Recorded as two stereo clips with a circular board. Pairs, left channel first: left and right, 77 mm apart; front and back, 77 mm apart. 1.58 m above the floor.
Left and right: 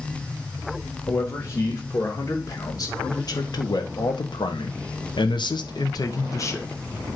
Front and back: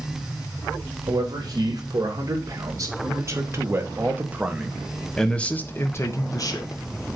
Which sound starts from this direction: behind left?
A man speaking, at 1.1 s.